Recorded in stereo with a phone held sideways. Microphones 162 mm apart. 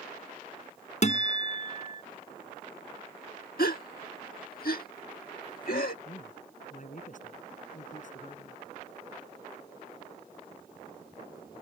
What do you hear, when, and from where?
1.0 s a guitar: 50° left (ahead or behind)
3.6 s a gasp: 75° left (ahead or behind)
6.0 s a man speaking: 55° left (ahead or behind)